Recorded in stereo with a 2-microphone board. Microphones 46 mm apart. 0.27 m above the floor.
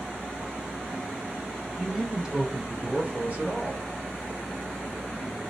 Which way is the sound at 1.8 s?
Centre (ahead or behind).